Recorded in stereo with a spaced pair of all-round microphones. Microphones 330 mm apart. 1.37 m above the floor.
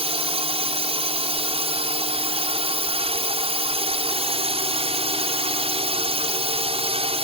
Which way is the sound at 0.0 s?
20° right (ahead or behind).